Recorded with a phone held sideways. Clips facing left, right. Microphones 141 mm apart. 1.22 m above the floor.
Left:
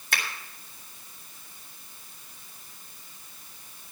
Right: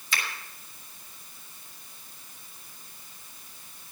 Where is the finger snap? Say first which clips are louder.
Left 1 dB; 60° left (ahead or behind), 3.5 m.